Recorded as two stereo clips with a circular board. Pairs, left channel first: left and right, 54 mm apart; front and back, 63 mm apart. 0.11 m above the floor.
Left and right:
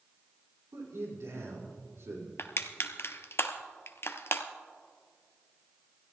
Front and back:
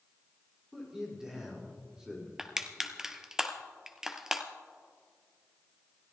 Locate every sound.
0.7 s a man speaking: 100° right, 6 m
2.4 s crushing: 100° left, 0.9 m